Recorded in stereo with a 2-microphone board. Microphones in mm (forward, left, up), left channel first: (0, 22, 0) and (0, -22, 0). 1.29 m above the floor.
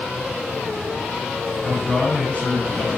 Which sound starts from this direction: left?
A man speaking, at 1.6 s.